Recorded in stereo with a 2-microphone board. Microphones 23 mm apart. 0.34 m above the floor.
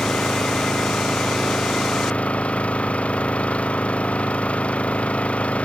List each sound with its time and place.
0.0 s an engine running: 75° left (ahead or behind)